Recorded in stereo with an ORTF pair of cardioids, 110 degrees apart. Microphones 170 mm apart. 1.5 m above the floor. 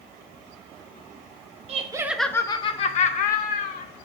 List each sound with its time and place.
1.7 s laughter: 40° right, 0.5 m; by 3.9 s 60° left, 1.4 m